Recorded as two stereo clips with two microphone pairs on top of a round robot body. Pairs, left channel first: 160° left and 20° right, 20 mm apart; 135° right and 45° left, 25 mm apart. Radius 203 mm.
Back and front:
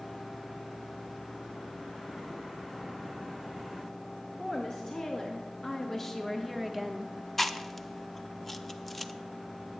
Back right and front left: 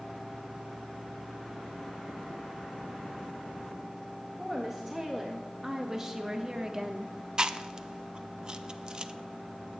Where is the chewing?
80° left, 0.8 m.